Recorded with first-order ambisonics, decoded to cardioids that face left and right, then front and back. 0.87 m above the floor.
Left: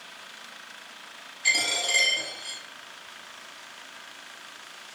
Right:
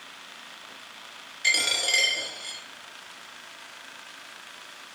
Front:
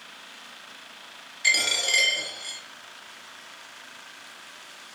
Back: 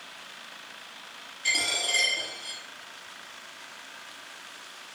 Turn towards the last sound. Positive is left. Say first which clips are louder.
# right 1 dB, front 4 dB
turn(degrees=-45)